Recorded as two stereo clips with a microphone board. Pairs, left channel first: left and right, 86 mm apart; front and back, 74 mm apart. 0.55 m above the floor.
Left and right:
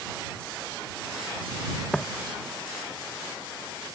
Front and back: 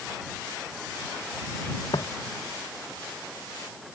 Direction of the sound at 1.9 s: 10° left.